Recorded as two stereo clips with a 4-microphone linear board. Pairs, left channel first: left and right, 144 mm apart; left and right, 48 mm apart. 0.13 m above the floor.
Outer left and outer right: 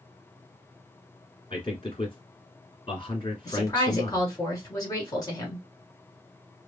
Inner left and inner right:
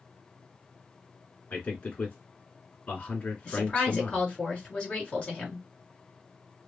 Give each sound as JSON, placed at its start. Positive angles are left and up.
{"t": 1.5, "sound": "a man speaking", "side_deg": 35, "distance_m": 1.6}
{"t": 3.5, "sound": "a woman speaking", "side_deg": 25, "distance_m": 2.0}